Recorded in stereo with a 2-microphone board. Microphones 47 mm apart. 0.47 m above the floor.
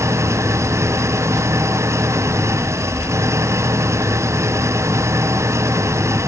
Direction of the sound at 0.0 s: 90° right.